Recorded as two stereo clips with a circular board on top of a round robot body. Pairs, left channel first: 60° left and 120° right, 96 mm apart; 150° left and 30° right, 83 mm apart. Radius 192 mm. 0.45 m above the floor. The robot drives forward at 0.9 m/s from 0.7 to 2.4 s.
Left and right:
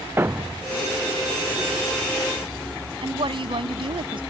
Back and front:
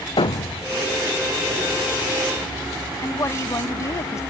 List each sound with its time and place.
0.2 s a thud: 175° left
3.0 s a woman speaking: 155° right